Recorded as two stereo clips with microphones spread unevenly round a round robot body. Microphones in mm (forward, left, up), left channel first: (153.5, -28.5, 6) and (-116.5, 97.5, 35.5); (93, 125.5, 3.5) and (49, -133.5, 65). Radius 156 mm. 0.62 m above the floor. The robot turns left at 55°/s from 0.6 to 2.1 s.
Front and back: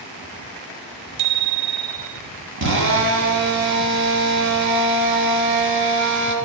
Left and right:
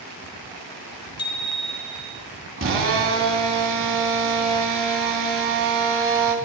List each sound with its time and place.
1.2 s a bicycle bell: 150° left, 2 m; by 2.2 s 100° left, 2 m
2.6 s a drill: 150° right, 3 m